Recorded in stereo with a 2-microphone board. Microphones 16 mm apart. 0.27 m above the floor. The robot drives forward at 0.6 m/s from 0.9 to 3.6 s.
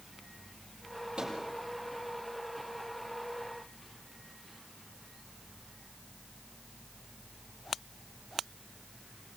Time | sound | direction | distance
1.2 | a microwave | 80° right | 8 m